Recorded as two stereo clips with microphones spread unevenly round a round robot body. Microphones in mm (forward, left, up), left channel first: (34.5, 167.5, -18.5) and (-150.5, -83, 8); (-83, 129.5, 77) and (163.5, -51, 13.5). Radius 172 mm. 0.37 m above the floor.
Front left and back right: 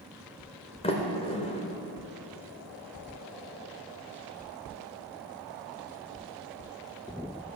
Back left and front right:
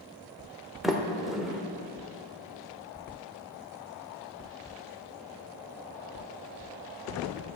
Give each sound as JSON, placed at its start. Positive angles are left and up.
{"t": 0.8, "sound": "a sliding door", "azimuth_deg": 25, "distance_m": 1.1}